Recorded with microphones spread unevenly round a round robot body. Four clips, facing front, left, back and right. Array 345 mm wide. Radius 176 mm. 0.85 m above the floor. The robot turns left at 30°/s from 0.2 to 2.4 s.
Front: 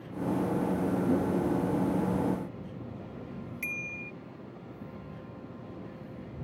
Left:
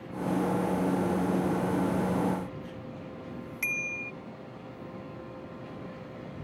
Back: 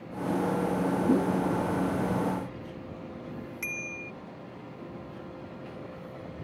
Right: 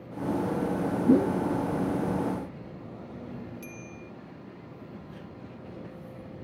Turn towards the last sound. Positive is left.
turn(degrees=105)